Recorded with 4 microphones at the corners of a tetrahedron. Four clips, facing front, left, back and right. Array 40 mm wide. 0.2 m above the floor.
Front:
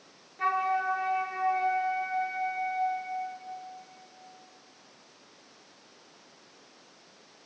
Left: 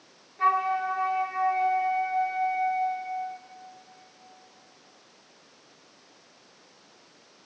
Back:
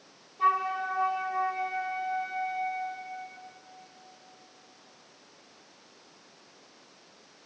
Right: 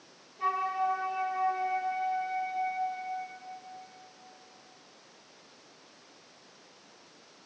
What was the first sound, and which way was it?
A flute, 55° left.